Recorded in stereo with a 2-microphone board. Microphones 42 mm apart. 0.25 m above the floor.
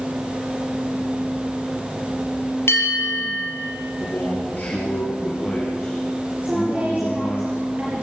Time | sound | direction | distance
2.7 | a bell | 80° left | 4.5 m
4.0 | a man speaking | 40° left (ahead or behind) | 5 m
6.4 | a woman speaking | 30° right (ahead or behind) | 4.5 m